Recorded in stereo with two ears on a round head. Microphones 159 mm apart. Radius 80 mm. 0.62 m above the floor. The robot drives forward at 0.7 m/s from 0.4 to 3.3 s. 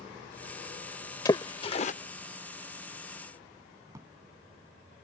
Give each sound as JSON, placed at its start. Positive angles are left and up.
{"t": 1.2, "sound": "a splash", "side_deg": 20}
{"t": 3.9, "sound": "a drawer", "side_deg": -20}